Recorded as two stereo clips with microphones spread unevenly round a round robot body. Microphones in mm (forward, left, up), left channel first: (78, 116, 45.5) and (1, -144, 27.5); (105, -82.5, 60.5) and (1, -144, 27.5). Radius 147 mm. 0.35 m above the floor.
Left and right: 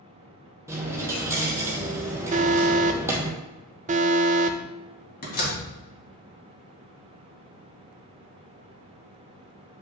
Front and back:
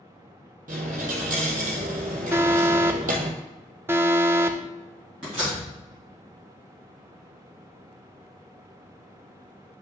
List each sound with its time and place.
0.7 s a dropped coin: 170° left, 0.9 m
2.3 s an alarm: 135° right, 0.6 m
5.2 s a door slam: 130° left, 2.5 m